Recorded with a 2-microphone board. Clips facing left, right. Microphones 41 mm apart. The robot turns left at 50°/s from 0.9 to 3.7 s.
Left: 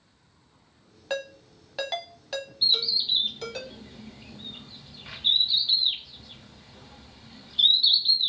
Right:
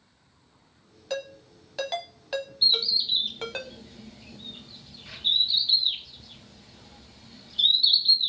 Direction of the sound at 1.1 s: 30° left (ahead or behind).